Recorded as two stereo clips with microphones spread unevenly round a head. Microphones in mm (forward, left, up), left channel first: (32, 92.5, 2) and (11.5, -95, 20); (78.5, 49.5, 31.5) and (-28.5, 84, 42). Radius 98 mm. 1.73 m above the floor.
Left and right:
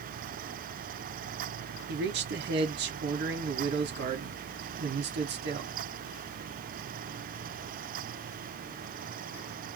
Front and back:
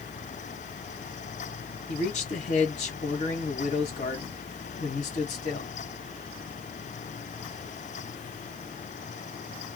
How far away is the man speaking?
About 1.3 m.